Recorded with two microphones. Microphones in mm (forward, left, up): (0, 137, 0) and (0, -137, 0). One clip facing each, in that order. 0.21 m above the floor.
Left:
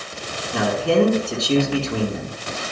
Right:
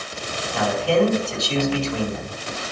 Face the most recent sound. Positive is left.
turn(degrees=60)  # may be behind; listen again after turning